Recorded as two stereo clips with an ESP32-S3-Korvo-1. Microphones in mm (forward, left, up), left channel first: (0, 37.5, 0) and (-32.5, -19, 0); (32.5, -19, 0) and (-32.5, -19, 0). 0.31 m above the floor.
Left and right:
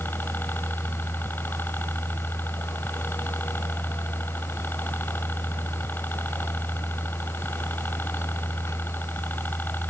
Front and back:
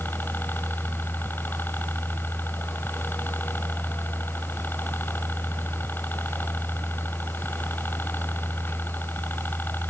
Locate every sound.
0.0 s a helicopter: 25° left